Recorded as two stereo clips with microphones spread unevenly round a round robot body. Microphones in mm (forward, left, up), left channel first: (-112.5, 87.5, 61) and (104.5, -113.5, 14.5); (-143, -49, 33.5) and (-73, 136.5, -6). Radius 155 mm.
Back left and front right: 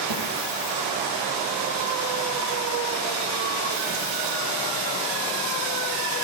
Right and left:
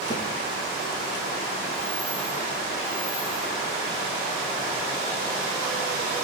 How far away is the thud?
About 6.5 m.